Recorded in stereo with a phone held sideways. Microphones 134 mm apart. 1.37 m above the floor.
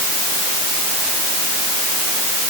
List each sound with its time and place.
Only background noise.